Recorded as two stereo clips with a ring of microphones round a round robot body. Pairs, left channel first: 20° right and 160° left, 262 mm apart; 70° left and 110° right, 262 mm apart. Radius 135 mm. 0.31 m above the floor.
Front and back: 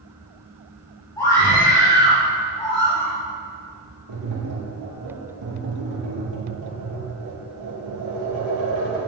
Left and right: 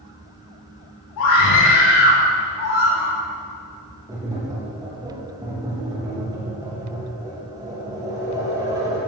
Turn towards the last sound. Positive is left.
turn(degrees=170)